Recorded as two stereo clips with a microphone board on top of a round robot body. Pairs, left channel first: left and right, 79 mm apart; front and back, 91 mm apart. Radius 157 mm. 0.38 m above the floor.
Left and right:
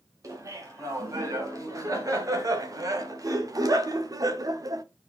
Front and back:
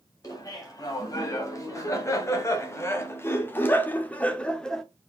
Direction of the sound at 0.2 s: 45° right.